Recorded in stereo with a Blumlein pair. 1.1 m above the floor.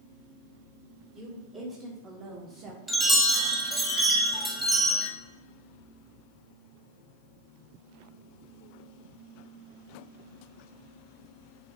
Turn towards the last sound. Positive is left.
turn(degrees=-10)